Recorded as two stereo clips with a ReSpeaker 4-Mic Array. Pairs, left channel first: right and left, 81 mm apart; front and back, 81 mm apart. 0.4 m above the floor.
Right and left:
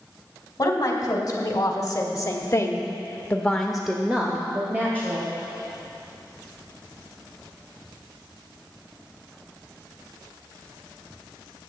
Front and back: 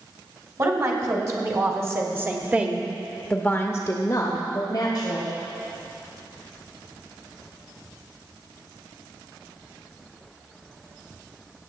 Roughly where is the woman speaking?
Behind right.